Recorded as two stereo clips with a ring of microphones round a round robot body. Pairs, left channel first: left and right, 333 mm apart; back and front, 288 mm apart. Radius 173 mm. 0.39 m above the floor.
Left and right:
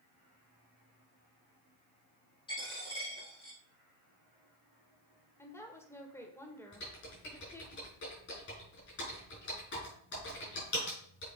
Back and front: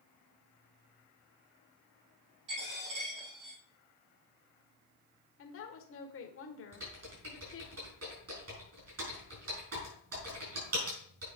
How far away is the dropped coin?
About 5 m.